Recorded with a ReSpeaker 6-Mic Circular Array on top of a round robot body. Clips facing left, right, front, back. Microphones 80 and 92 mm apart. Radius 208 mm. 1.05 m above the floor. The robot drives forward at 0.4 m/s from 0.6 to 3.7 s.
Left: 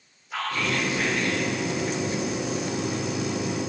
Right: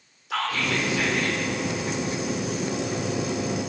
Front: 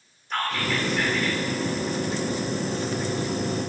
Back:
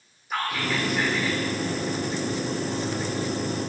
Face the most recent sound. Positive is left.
turn(degrees=-110)